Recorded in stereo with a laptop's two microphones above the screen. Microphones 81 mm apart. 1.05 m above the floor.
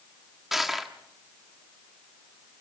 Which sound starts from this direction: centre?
Crushing, at 0.5 s.